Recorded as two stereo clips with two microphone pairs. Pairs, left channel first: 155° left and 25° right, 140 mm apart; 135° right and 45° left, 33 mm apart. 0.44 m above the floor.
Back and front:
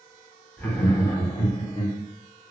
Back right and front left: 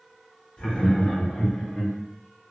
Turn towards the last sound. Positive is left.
turn(degrees=175)